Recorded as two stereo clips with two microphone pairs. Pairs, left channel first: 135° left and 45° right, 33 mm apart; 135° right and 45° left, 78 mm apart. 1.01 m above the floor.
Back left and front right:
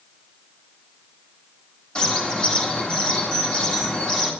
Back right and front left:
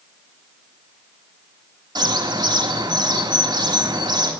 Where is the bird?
65° left, 1.9 m.